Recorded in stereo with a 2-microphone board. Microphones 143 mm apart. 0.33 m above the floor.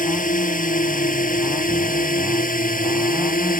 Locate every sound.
0.0 s a drone: 70° left (ahead or behind); by 3.6 s 75° left (ahead or behind)